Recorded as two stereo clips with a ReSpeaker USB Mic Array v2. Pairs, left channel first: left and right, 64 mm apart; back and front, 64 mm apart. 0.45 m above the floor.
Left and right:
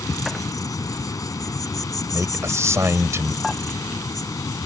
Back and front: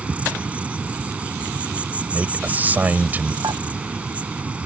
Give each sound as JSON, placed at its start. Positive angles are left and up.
{"t": 0.0, "sound": "an insect", "azimuth_deg": 70}
{"t": 2.1, "sound": "a man speaking", "azimuth_deg": -55}
{"t": 3.4, "sound": "dishes clattering", "azimuth_deg": 5}